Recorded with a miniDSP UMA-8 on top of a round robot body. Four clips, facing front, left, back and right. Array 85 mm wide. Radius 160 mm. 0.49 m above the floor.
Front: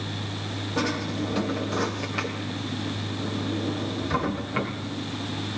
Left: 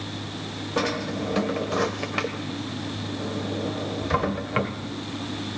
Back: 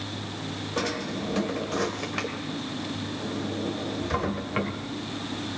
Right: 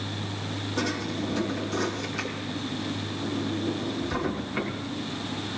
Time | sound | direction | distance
0.8 | a drawer | 95° left | 1.7 m